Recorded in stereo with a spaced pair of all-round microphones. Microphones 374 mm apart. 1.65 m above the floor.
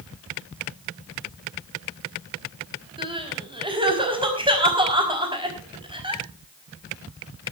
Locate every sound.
3.0 s crying: 15° right (ahead or behind), 5 m